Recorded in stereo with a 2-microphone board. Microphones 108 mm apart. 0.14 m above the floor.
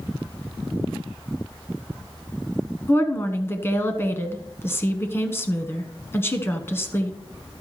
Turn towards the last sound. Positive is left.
turn(degrees=25)  # may be behind; listen again after turning